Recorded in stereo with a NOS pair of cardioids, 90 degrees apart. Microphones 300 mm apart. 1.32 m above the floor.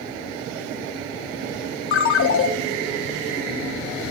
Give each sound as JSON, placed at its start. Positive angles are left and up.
{"t": 1.9, "sound": "a ringtone", "azimuth_deg": 45, "distance_m": 0.6}